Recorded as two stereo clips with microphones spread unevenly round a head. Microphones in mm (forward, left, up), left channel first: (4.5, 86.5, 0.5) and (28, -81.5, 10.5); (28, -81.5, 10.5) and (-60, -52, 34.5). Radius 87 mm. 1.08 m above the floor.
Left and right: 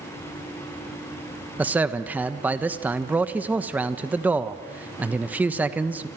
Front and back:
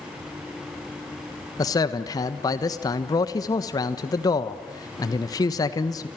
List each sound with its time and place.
1.6 s a man speaking: straight ahead, 1.3 m